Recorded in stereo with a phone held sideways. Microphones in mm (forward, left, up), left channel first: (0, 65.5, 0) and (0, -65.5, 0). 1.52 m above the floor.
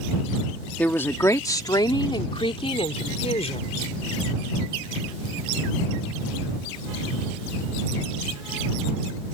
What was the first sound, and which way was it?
A woman speaking, 15° left (ahead or behind).